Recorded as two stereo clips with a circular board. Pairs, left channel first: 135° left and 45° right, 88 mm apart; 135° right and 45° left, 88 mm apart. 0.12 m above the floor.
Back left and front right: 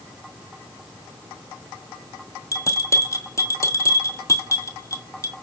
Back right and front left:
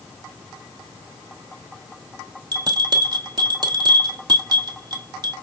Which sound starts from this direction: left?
A bell, at 2.5 s.